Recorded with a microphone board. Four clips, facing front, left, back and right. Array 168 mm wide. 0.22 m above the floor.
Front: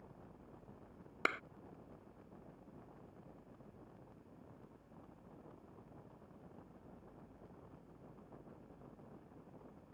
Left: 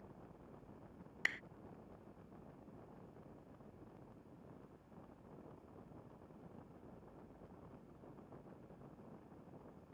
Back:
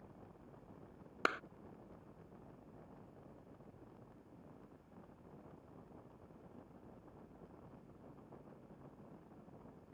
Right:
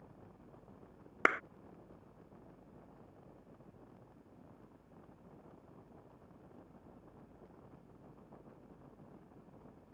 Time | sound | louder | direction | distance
1.2 | a clap | right 13 dB, back 1 dB | 95° right | ?